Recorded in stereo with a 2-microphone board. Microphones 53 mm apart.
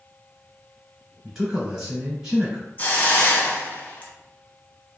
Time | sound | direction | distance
1.2 | a man speaking | 5° right (ahead or behind) | 1.7 m
2.8 | a hiss | 35° left (ahead or behind) | 0.7 m